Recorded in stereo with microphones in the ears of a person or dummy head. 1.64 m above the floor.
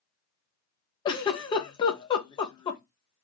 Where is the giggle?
20° left (ahead or behind), 0.7 m.